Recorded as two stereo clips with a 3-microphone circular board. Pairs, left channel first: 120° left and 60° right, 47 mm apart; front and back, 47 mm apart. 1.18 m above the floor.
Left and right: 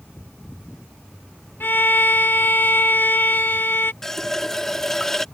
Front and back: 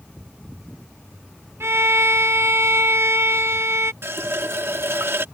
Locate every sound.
1.6 s a violin: 160° left
4.0 s a running tap: 160° right